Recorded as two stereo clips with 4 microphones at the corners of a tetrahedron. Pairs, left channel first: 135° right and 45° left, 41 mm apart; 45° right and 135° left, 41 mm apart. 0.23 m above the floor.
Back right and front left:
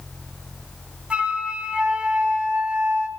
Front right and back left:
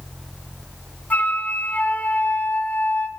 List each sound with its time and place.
1.1 s a flute: 10° right, 1.2 m